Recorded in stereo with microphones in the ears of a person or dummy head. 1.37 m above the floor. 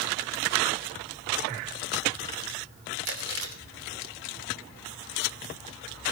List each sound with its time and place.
3.0 s chewing: 65° right (ahead or behind), 2.5 m